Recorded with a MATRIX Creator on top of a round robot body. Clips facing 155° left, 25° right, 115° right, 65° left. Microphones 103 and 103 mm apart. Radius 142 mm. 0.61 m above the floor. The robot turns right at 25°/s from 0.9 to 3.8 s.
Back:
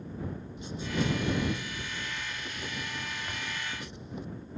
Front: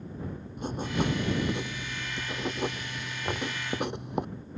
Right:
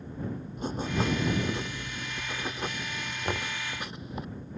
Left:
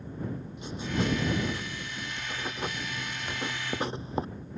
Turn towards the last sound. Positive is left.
turn(degrees=-55)